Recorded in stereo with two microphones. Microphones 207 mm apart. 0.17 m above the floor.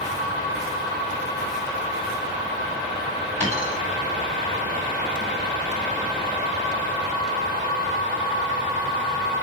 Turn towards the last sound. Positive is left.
turn(degrees=-35)  # may be behind; listen again after turning